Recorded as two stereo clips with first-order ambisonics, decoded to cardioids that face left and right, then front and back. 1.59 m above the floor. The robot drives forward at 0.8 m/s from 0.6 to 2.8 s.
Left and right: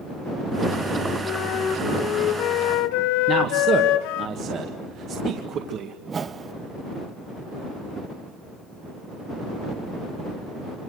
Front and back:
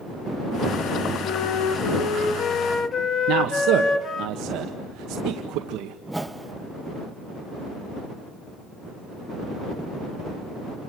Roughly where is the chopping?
No chopping in this recording.